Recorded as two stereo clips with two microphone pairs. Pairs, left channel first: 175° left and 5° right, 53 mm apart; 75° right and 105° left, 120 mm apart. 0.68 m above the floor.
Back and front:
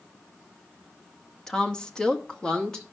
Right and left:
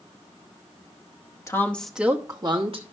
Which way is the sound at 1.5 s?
115° right.